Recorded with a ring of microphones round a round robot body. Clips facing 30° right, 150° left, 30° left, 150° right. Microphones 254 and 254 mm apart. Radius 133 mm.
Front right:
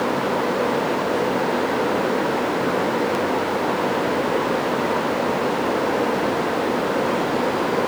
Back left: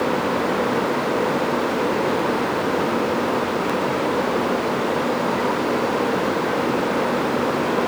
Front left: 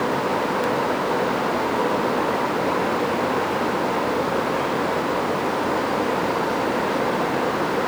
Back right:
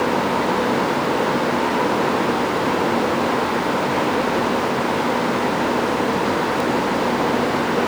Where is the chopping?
No chopping in this recording.